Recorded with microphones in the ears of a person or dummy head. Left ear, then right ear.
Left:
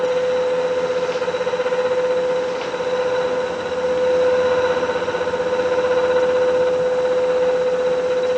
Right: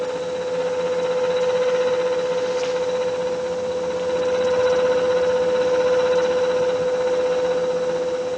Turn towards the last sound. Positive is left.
No sound to turn to.